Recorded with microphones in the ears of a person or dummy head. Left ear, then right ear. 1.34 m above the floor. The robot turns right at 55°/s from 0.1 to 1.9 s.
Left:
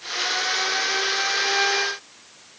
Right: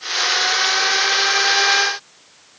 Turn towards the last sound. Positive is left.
No sound to turn to.